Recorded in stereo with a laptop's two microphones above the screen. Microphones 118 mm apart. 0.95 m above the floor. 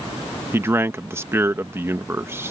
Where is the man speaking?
20° right (ahead or behind).